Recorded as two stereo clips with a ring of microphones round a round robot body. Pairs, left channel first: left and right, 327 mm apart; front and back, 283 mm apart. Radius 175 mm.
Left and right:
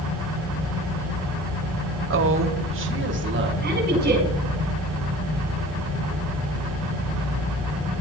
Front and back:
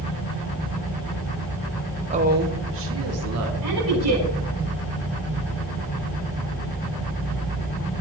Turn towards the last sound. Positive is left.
turn(degrees=-150)